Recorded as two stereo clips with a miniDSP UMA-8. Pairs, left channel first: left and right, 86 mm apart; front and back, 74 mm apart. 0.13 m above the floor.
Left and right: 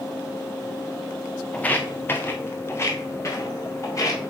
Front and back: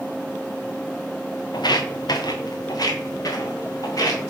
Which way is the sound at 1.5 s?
15° left.